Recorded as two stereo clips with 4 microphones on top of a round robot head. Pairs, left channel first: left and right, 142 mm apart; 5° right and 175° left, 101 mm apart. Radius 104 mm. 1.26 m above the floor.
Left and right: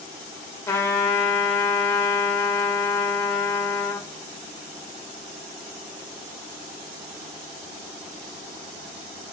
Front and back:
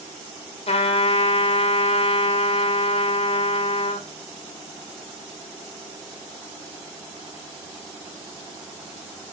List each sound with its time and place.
0.7 s a trumpet: 20° left, 1.6 m